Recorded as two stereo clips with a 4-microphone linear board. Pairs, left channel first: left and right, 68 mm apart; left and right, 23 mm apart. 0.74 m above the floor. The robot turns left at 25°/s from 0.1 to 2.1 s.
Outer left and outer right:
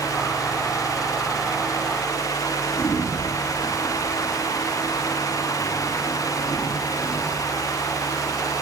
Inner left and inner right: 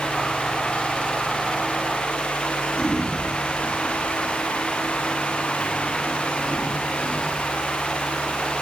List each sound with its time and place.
2.8 s a sliding door: 35° left (ahead or behind), 5.5 m